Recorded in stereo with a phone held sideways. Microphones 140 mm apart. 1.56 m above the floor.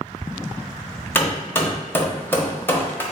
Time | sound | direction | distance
1.1 | hammering | 15° left (ahead or behind) | 0.7 m